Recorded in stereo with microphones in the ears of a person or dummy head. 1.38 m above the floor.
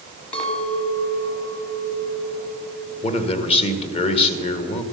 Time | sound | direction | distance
0.3 | a clink | 30° left (ahead or behind) | 1.6 m
3.0 | a man speaking | 35° left (ahead or behind) | 1.0 m